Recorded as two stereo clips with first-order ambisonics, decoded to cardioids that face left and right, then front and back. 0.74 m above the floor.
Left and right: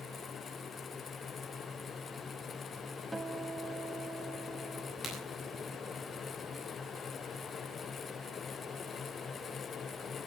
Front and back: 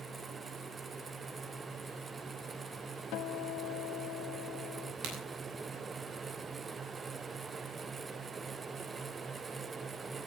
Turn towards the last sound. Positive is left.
turn(degrees=155)